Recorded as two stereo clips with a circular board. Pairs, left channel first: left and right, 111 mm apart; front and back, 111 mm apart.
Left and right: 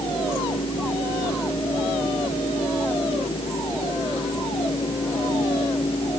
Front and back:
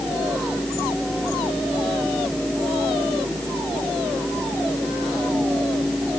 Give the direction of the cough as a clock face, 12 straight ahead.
I don't hear a cough.